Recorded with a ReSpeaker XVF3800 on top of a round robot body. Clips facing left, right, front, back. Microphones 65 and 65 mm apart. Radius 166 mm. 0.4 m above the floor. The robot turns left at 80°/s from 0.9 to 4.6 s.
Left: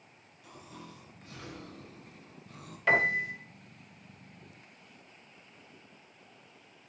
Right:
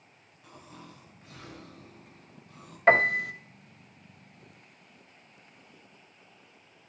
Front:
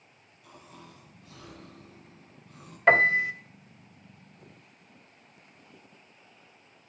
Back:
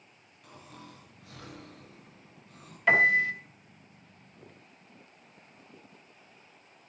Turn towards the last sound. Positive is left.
turn(degrees=180)